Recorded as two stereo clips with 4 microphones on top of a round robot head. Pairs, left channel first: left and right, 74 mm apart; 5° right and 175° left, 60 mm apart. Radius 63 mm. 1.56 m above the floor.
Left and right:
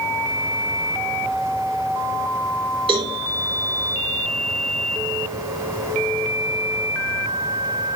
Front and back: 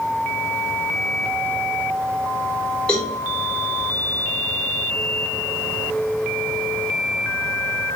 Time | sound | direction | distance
2.9 | a cowbell | 85° right | 3.5 m